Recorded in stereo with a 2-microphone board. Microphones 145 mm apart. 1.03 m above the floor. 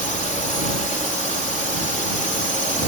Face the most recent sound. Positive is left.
turn(degrees=60)  # may be behind; listen again after turning